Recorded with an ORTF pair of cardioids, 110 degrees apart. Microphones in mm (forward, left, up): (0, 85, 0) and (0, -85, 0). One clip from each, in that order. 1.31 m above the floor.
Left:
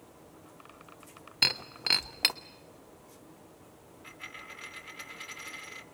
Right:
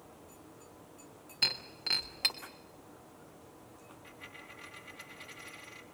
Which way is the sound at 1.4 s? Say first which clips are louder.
Left 4 dB; 35° left.